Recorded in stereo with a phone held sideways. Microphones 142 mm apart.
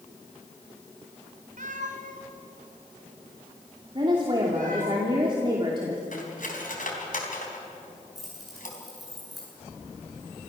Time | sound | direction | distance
1.6 | a cat meowing | 70° right (ahead or behind) | 2 m
4.0 | a woman speaking | 35° right (ahead or behind) | 2.5 m
6.1 | cutlery clinking | 75° left (ahead or behind) | 3.5 m
8.2 | keys jangling | centre (ahead or behind) | 9 m